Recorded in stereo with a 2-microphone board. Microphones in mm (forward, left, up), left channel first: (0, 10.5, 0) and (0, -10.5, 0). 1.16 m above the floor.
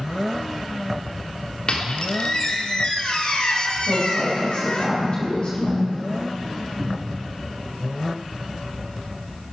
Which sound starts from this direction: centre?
A cupboard door, at 6.8 s.